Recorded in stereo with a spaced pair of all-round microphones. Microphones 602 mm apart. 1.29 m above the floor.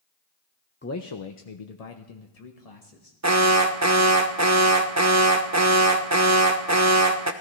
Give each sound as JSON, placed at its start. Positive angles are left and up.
{"t": 0.8, "sound": "a man speaking", "side_deg": 20, "distance_m": 0.7}
{"t": 3.2, "sound": "an alarm", "side_deg": -30, "distance_m": 0.8}